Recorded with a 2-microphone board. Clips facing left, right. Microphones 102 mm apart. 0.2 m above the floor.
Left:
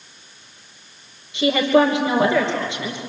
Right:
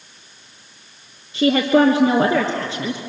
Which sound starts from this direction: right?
A woman speaking, at 1.3 s.